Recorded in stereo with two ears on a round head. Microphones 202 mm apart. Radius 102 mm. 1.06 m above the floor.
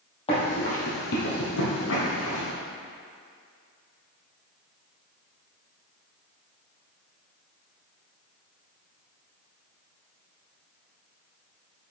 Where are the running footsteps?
25° left (ahead or behind), 2.5 m; by 2.5 s 65° left (ahead or behind), 2.5 m.